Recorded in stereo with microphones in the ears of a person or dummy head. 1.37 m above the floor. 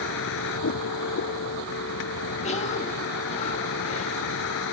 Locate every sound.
0.0 s a vehicle: 60° left (ahead or behind)
2.4 s a cough: 45° left (ahead or behind)